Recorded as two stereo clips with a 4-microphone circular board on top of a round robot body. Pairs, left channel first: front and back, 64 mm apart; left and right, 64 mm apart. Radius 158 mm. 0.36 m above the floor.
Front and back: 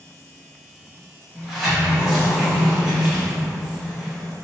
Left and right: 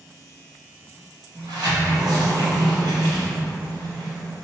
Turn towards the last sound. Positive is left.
turn(degrees=-95)